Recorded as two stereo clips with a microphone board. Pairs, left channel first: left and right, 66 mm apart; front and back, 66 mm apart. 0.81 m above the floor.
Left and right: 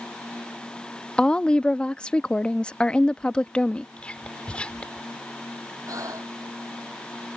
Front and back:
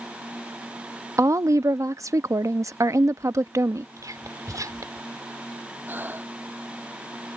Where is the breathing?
120° right.